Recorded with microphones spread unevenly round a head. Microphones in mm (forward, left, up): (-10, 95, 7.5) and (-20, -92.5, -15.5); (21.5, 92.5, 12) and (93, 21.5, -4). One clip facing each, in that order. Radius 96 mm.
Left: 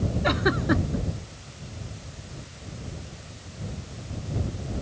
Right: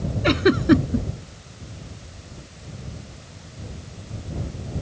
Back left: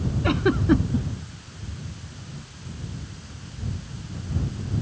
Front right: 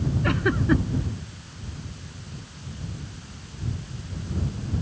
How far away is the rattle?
I don't hear a rattle.